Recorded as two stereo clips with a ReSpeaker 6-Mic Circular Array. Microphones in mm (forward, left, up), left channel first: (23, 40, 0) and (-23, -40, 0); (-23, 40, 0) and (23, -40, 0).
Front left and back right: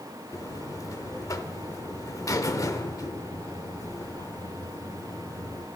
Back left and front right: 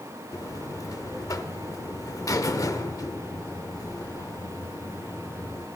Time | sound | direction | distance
0.3 | a buzzer | 90° left | 0.8 m